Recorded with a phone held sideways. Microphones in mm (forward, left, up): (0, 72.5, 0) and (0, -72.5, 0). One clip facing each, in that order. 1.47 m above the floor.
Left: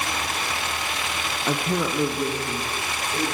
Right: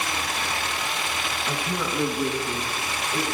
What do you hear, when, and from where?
1.5 s a man speaking: 65° left (ahead or behind), 0.7 m; by 3.2 s 20° right (ahead or behind), 2.5 m